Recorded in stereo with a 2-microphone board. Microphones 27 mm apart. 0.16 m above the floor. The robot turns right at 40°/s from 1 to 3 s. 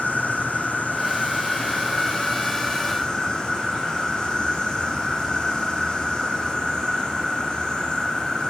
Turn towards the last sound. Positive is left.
turn(degrees=145)